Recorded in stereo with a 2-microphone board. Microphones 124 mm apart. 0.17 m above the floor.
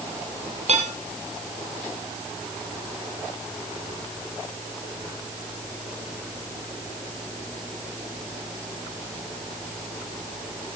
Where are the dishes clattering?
55° right (ahead or behind), 3 m.